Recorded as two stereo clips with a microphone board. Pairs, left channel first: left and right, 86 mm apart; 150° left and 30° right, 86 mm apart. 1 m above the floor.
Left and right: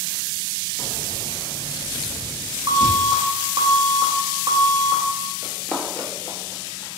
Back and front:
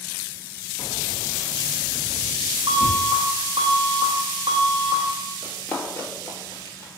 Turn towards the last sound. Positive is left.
turn(degrees=105)